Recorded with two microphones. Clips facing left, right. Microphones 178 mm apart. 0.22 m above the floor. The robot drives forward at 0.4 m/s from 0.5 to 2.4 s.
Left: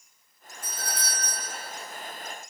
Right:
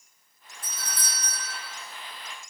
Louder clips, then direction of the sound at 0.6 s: Left 4 dB; 20° right (ahead or behind).